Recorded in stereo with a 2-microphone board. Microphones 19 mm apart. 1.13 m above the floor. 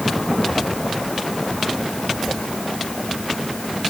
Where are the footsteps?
No footsteps in this recording.